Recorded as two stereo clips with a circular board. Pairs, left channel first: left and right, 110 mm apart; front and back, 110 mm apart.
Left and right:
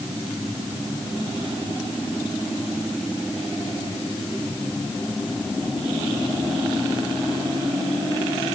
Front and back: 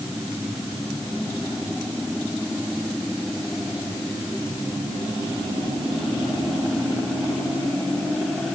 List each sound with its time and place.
Only background noise.